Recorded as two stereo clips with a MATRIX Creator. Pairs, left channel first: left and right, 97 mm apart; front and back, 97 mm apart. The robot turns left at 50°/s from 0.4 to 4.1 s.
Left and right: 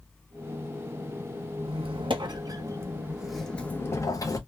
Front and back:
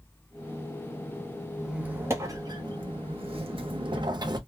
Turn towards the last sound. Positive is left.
turn(degrees=140)